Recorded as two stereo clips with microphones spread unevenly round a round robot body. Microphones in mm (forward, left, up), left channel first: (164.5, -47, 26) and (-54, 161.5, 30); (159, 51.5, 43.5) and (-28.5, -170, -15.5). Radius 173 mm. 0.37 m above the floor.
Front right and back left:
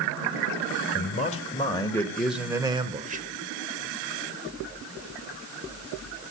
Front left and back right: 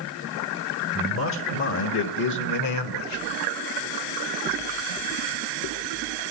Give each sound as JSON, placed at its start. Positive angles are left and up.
{"t": 0.9, "sound": "a man speaking", "azimuth_deg": 15, "distance_m": 1.9}